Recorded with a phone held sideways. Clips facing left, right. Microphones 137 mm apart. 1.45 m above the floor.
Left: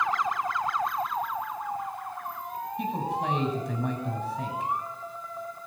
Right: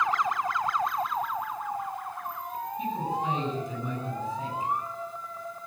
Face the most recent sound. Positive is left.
turn(degrees=75)  # may be behind; listen again after turning